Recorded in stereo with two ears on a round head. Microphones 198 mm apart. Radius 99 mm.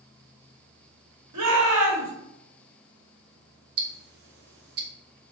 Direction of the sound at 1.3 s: 80° right.